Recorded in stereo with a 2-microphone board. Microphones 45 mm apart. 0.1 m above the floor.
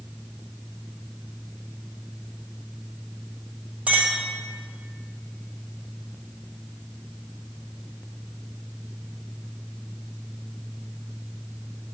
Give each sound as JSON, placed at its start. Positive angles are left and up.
{"t": 3.9, "sound": "a clink", "side_deg": -30, "distance_m": 1.7}